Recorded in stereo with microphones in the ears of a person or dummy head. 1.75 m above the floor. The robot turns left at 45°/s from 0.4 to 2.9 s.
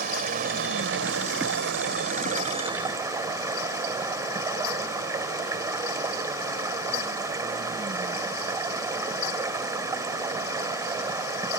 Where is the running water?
50° right; by 11.6 s 165° right.